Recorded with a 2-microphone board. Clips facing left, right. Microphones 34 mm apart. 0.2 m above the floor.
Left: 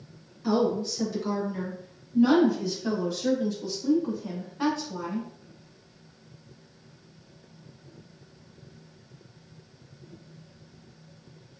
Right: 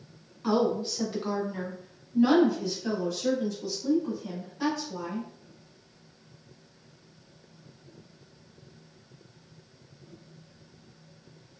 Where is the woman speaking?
35° right (ahead or behind), 1.9 m; by 5.3 s 40° left (ahead or behind), 2.0 m.